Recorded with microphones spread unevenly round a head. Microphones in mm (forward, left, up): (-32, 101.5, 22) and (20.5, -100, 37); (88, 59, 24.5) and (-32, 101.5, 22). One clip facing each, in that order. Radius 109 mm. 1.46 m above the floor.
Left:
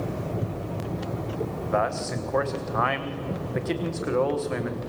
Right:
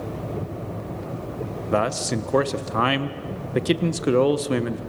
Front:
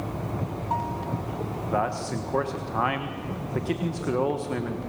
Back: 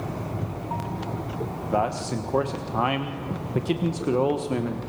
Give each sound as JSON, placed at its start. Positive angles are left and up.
{"t": 1.7, "sound": "a man speaking", "azimuth_deg": -125, "distance_m": 1.4}